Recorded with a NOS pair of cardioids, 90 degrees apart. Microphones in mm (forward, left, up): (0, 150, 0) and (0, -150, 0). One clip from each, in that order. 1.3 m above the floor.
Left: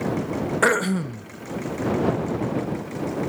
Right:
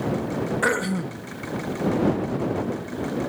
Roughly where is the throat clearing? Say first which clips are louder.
Left 4 dB; ahead left.